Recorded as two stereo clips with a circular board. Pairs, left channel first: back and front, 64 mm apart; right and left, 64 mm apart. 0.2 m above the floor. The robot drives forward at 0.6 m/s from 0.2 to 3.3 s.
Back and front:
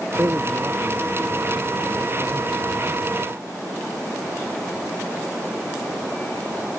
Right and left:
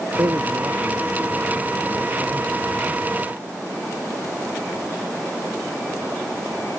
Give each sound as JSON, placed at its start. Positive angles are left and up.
{"t": 0.2, "sound": "a man speaking", "azimuth_deg": 50}